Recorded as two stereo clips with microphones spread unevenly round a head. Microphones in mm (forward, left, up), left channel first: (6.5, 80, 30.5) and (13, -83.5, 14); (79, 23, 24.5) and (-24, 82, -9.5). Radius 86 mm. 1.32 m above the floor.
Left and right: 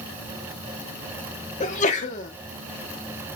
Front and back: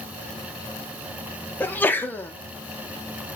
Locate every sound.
1.6 s a sneeze: 45° left, 1.1 m